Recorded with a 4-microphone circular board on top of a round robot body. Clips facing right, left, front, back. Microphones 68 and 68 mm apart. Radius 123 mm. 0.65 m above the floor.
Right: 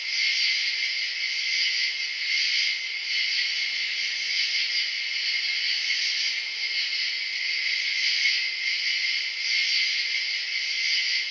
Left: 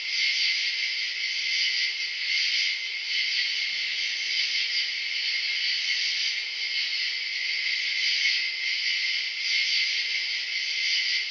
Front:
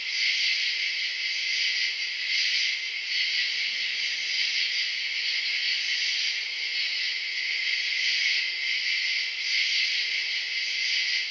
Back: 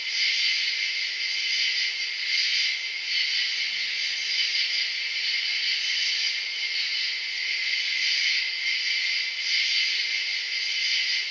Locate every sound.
0.0 s an insect: 155° right, 1.0 m